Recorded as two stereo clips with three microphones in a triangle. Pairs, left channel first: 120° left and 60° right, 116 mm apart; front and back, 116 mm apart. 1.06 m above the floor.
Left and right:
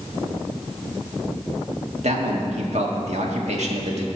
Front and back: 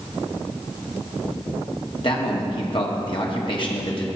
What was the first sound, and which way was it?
A man speaking, 45° right.